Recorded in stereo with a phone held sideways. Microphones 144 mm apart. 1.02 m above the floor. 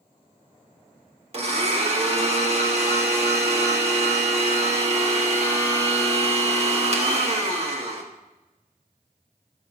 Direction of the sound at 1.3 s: 45° right (ahead or behind).